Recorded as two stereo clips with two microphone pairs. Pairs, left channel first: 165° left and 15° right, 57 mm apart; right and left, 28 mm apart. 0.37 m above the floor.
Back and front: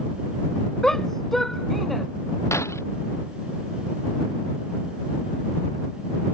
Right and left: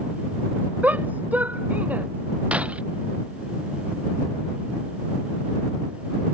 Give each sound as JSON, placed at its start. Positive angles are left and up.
{"t": 0.8, "sound": "a shout", "azimuth_deg": 85}
{"t": 2.5, "sound": "breaking glass", "azimuth_deg": 130}